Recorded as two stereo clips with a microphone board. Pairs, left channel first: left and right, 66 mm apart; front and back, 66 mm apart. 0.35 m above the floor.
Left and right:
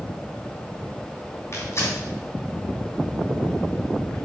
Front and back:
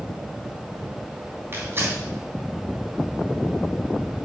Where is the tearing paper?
130° left, 3.5 m.